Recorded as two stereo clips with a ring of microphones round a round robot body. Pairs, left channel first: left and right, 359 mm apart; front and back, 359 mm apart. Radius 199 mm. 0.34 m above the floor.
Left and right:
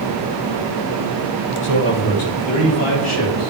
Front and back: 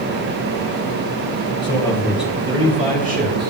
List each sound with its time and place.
1.6 s a man speaking: 70° left, 1.6 m; by 3.5 s 125° left, 2.5 m